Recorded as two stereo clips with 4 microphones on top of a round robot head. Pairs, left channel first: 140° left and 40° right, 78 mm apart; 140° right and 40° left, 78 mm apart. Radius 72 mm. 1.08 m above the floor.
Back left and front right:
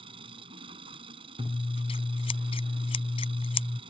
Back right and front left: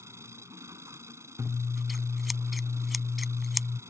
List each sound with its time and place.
0.0 s an engine running: 20° right
1.4 s scissors: 130° left